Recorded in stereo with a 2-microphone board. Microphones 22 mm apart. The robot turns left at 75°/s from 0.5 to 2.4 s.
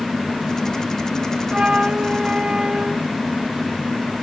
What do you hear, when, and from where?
1.5 s a flute: 60° right, 0.7 m; by 3.0 s 125° right, 0.7 m